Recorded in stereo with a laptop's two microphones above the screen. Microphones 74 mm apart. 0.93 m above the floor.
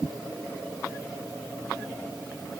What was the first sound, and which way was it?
Only background noise.